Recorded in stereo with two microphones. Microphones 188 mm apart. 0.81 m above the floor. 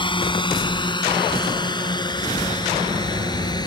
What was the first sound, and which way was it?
A drone, 25° left (ahead or behind).